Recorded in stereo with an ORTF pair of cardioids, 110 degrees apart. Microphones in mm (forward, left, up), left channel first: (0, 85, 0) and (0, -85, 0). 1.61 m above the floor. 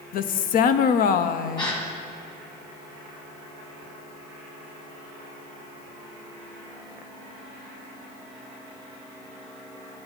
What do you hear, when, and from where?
0.1 s a woman speaking: 60° left, 0.6 m
1.6 s a gasp: 25° left, 1.8 m